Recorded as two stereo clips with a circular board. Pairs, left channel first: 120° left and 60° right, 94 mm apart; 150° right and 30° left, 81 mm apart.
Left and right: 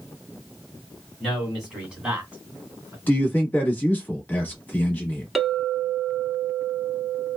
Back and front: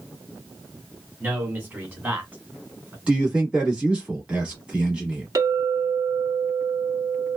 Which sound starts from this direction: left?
A man speaking, at 3.1 s.